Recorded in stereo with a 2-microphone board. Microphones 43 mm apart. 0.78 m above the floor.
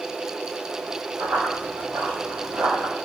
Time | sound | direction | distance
1.2 | running footsteps | 65° right (ahead or behind) | 2 m